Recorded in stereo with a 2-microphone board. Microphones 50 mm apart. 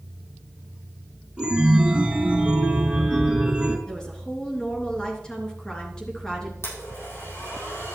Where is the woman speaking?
15° left (ahead or behind), 3 m.